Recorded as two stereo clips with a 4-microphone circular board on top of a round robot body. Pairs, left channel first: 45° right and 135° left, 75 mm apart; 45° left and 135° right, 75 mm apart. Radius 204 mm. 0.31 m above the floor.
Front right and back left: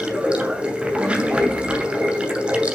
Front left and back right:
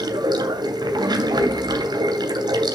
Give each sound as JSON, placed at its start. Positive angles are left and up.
{"t": 0.0, "sound": "running water", "azimuth_deg": -150, "distance_m": 2.5}